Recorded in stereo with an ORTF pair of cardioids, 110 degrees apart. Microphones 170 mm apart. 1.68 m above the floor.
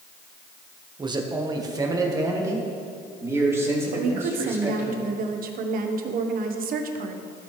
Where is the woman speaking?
60° right, 1.2 m.